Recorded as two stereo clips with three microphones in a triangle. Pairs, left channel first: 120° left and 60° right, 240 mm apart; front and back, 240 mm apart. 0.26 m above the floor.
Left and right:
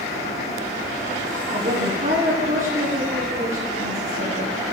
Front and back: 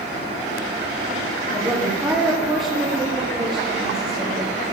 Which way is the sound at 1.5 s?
110° right.